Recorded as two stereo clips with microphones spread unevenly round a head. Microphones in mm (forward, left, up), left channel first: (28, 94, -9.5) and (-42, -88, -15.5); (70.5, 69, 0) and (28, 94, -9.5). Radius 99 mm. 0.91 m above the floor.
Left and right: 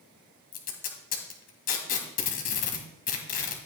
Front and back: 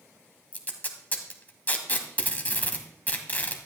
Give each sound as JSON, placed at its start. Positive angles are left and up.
{"t": 0.5, "sound": "tape being pulled", "azimuth_deg": 20, "distance_m": 1.9}